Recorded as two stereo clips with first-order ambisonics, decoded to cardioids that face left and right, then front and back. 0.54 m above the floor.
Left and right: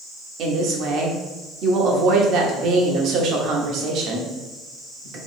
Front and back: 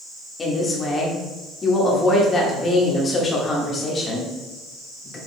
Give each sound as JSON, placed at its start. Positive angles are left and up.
{"t": 0.4, "sound": "a woman speaking", "azimuth_deg": -65, "distance_m": 1.0}